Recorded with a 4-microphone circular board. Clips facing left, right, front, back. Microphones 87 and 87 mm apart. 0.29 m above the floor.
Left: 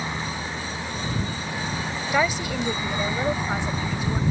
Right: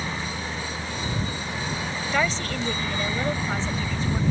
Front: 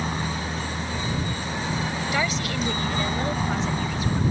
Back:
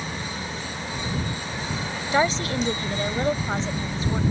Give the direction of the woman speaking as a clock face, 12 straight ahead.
7 o'clock.